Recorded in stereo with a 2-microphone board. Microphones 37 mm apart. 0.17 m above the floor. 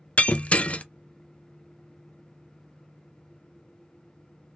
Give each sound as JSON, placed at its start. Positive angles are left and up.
{"t": 0.2, "sound": "breaking glass", "side_deg": 40, "distance_m": 0.5}